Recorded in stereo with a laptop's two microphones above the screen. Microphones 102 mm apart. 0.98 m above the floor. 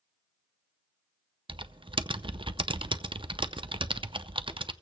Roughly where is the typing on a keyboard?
Right.